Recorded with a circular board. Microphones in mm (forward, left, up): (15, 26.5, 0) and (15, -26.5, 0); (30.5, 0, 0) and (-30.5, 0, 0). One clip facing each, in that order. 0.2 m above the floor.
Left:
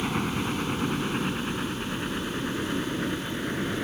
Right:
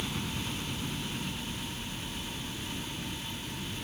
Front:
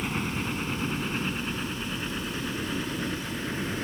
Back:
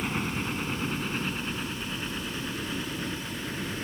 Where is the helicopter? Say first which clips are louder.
Left 8 dB, even; 95° left; by 3.9 s 75° left.